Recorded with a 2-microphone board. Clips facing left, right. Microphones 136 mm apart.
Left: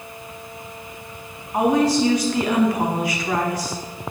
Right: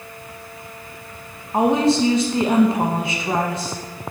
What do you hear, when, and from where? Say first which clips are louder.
1.5 s a woman speaking: right 1 dB; 25° right (ahead or behind), 2.0 m